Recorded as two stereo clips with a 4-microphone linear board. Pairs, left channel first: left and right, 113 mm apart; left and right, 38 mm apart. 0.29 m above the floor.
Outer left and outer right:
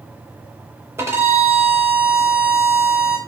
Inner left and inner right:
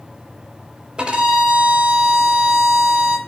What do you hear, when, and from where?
1.0 s a violin: 20° right (ahead or behind), 0.8 m